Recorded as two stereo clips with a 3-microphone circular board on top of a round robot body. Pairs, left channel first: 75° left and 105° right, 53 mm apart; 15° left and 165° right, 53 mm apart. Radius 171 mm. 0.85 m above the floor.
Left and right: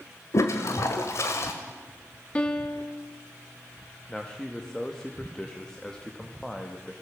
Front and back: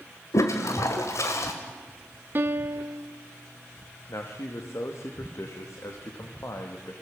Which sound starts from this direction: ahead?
A man speaking, at 4.1 s.